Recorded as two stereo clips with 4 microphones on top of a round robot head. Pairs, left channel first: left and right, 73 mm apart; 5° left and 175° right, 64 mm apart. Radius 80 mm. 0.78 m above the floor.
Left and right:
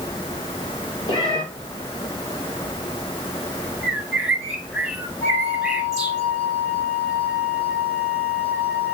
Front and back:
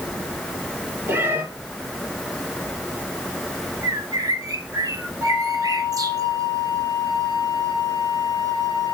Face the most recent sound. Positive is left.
turn(degrees=160)